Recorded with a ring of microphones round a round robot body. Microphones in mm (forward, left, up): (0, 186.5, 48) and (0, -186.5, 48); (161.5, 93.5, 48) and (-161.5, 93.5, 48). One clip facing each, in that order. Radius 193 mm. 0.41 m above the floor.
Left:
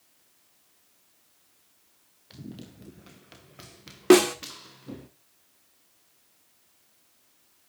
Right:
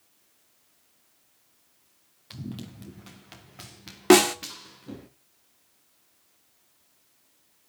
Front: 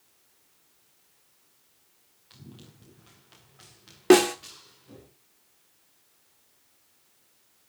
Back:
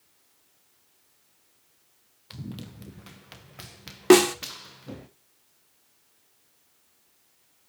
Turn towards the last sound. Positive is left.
turn(degrees=-125)